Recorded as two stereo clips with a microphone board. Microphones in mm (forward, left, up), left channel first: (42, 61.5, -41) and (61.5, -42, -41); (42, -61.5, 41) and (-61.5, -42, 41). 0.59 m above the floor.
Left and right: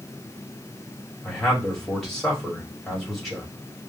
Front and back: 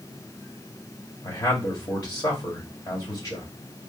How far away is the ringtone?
No ringtone in this recording.